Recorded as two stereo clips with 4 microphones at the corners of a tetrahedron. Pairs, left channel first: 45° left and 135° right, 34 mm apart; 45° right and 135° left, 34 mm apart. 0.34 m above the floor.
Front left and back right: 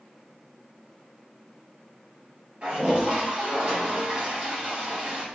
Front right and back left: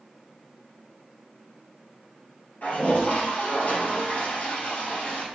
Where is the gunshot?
No gunshot in this recording.